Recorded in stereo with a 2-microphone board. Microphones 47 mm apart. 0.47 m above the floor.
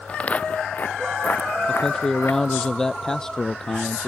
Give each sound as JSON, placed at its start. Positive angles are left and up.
{"t": 0.1, "sound": "footsteps", "side_deg": 30}
{"t": 1.7, "sound": "a man speaking", "side_deg": 15}